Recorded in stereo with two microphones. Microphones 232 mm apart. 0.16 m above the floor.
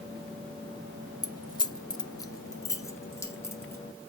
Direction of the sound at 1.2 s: 15° left (ahead or behind).